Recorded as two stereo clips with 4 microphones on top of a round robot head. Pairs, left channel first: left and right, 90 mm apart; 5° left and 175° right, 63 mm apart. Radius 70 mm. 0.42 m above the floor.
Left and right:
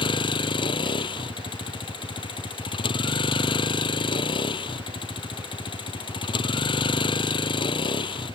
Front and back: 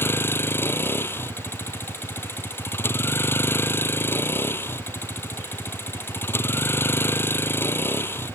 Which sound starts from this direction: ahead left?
A vehicle, at 0.0 s.